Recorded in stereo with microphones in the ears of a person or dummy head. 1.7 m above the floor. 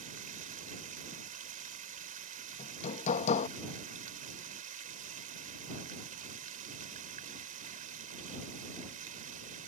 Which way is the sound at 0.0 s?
50° right (ahead or behind).